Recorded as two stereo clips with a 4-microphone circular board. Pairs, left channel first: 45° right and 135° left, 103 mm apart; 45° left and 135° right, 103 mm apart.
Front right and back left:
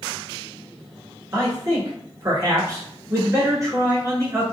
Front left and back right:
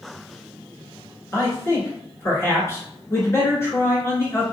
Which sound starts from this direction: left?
A man speaking, at 1.3 s.